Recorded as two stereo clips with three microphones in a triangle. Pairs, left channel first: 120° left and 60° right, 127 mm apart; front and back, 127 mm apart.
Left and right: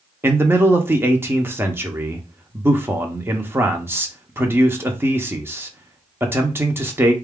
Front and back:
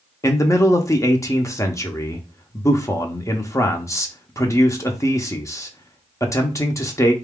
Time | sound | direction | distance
0.2 | a man speaking | 20° right | 0.7 m